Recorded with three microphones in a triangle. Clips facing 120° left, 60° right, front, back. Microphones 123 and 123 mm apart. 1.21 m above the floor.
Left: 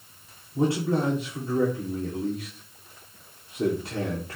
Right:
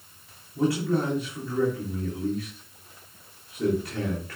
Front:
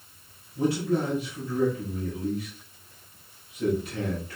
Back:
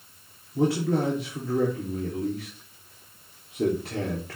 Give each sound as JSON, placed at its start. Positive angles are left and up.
{"t": 0.6, "sound": "a man speaking", "azimuth_deg": 180, "distance_m": 3.0}